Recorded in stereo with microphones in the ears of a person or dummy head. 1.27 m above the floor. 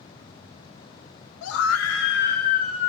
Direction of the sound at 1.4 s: 70° left (ahead or behind).